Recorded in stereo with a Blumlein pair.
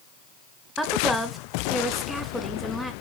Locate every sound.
0.8 s a woman speaking: straight ahead, 2.5 m